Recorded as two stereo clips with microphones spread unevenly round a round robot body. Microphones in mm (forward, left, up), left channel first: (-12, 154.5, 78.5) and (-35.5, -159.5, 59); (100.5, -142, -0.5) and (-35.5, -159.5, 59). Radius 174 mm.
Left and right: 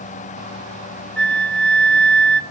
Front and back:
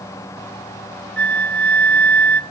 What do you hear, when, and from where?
1.2 s a flute: 5° right, 1.3 m